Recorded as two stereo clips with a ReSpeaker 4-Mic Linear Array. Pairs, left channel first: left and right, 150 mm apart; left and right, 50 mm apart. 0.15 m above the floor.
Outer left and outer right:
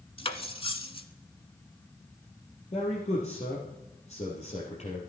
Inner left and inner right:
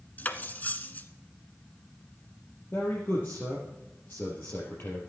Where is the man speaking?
45° left (ahead or behind), 3.5 m.